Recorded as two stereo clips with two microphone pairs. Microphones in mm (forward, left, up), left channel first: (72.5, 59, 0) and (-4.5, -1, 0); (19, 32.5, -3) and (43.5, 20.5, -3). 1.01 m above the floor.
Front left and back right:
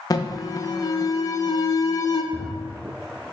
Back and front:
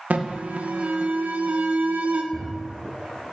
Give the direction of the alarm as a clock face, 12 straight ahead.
12 o'clock.